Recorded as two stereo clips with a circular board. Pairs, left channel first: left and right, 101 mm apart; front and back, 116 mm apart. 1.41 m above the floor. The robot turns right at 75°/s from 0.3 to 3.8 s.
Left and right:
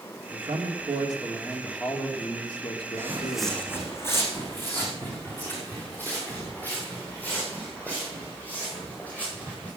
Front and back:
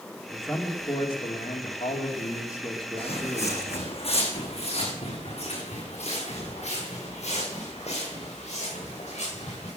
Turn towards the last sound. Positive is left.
turn(degrees=15)